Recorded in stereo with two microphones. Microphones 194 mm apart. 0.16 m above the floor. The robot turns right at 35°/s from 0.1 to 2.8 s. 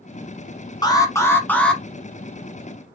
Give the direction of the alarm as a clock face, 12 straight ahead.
7 o'clock.